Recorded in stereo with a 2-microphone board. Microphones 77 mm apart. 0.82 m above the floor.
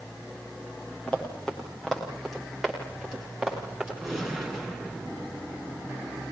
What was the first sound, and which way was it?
Running footsteps, 10° left (ahead or behind).